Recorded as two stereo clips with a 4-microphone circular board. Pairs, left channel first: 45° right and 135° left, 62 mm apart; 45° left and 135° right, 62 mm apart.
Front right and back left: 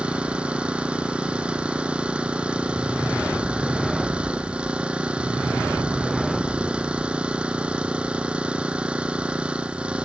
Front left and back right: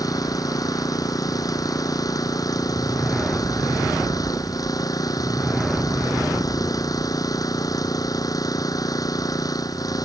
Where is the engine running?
60° left.